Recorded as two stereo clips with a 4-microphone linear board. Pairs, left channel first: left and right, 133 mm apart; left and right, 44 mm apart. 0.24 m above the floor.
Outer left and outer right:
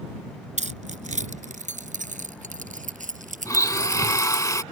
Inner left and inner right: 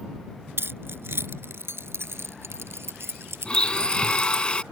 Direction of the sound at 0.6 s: 65° right (ahead or behind).